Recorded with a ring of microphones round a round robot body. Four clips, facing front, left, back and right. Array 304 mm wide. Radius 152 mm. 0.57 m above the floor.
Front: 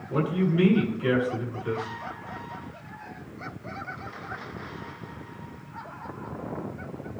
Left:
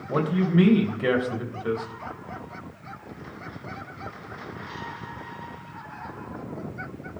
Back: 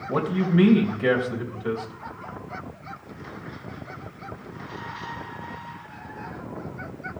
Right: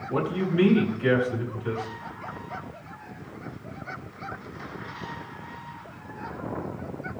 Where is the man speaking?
135° left, 3.5 m.